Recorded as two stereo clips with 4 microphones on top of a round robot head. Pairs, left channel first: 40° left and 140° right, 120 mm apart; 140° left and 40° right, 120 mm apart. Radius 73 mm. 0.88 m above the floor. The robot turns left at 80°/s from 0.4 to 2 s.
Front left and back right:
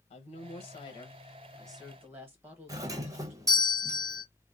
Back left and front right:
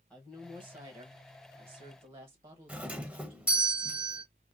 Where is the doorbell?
110° right, 0.8 m.